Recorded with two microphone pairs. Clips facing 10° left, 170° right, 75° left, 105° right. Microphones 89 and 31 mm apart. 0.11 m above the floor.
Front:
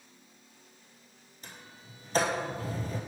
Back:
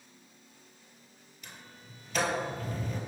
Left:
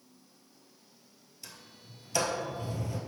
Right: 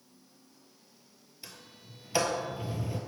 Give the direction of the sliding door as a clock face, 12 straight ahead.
1 o'clock.